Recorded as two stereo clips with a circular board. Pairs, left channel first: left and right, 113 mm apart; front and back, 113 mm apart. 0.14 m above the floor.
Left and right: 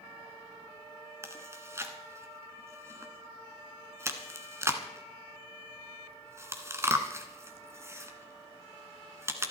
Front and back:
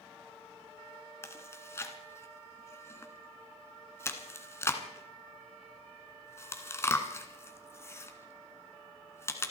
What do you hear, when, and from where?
1.2 s chewing: 45° right, 1.5 m